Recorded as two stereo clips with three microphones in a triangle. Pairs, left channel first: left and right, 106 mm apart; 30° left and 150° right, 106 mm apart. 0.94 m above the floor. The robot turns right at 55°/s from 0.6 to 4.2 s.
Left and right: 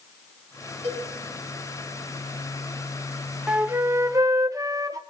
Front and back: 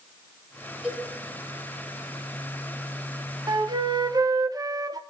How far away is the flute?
About 0.7 m.